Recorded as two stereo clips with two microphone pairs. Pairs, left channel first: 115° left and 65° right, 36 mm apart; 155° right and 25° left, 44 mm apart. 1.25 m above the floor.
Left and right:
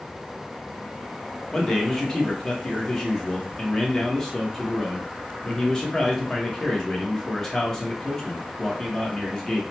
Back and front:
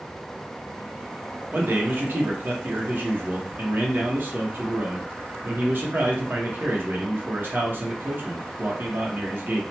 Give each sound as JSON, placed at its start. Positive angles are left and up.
{"t": 1.5, "sound": "a man speaking", "azimuth_deg": 45, "distance_m": 1.0}